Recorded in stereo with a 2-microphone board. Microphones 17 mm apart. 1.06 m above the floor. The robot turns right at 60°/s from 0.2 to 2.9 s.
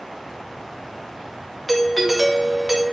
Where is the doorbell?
160° left, 0.5 m; by 2.9 s 130° right, 0.5 m.